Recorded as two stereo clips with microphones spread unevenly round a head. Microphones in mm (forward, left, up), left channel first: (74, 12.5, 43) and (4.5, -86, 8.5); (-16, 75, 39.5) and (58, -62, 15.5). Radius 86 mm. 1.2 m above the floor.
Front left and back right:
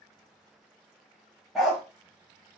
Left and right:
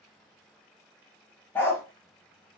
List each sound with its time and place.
1.6 s a dog barking: 105° left, 0.6 m